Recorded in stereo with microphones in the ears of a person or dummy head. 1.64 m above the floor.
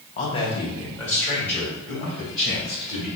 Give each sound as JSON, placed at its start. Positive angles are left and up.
{"t": 0.2, "sound": "a man speaking", "side_deg": 40, "distance_m": 1.1}